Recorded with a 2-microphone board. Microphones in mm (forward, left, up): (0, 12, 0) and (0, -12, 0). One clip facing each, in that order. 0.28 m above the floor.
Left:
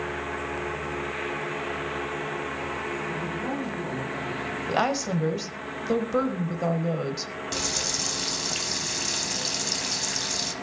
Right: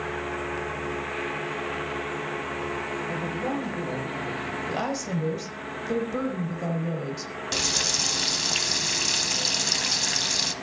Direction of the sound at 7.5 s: 25° right (ahead or behind).